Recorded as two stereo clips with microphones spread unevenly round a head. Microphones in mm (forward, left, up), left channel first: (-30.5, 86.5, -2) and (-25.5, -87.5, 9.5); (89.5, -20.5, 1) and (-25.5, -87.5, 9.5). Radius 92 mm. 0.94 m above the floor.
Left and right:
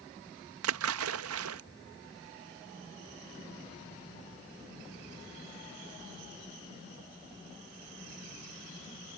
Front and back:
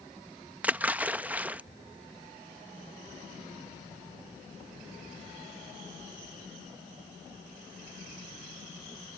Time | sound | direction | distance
0.6 | a splash | 70° right | ?